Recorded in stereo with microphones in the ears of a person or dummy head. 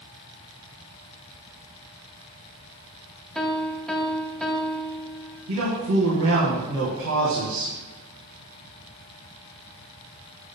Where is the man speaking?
80° right, 1.8 m.